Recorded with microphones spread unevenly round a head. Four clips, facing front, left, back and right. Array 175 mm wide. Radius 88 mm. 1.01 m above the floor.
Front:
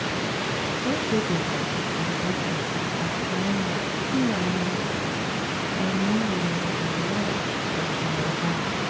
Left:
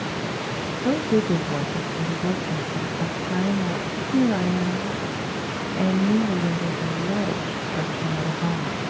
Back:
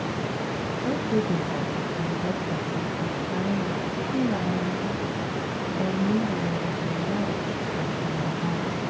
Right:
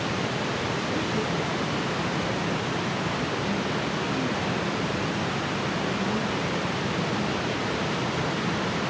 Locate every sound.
0.8 s a woman speaking: 90° left, 1.1 m